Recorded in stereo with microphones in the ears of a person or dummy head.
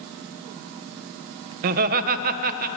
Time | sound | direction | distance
1.6 | laughter | 45° right (ahead or behind) | 1.5 m